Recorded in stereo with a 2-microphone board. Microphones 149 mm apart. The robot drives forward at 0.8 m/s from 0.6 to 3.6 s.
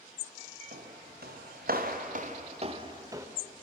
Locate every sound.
0.7 s footsteps: 80° right, 4 m; by 3.3 s 15° right (ahead or behind), 2.5 m